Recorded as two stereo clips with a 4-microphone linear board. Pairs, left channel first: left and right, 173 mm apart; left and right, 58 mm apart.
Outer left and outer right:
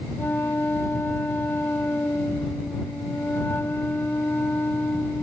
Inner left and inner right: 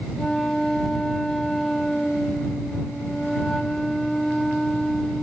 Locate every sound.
0.2 s a flute: 10° left (ahead or behind)